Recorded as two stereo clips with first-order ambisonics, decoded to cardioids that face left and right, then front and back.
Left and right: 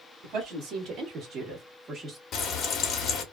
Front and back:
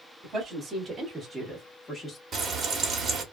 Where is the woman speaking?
115° right, 1.3 m; by 2.2 s 30° right, 0.8 m.